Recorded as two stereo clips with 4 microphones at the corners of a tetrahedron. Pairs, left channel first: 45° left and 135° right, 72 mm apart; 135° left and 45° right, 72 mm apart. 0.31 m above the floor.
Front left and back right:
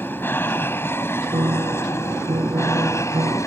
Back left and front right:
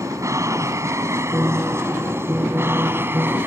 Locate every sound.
0.0 s an aircraft: 10° right; by 3.5 s 10° left
1.3 s a piano: 115° right